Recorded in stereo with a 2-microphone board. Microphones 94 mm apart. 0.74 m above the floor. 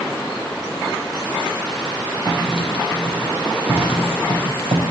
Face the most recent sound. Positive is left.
turn(degrees=-75)  # may be behind; listen again after turning